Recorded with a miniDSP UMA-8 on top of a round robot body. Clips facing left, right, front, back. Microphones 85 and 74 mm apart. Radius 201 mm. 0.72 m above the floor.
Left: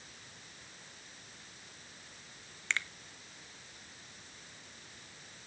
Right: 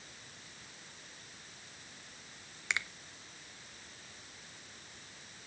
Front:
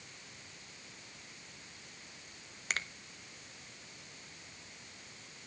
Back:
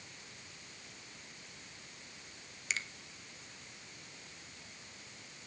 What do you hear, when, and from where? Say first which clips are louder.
2.7 s a finger snap: even, front 2 dB; 15° right, 1.2 m